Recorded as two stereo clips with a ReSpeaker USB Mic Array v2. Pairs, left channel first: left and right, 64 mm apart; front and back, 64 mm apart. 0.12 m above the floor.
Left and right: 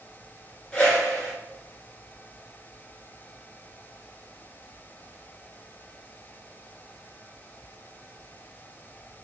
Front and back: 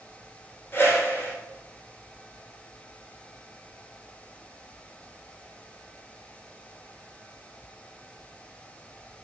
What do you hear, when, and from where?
0.7 s a whoosh: 25° left, 0.9 m